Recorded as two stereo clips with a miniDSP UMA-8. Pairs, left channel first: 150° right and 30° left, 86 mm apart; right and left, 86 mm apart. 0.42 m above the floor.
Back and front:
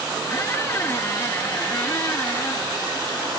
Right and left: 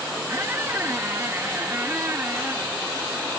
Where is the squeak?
150° left, 0.8 m.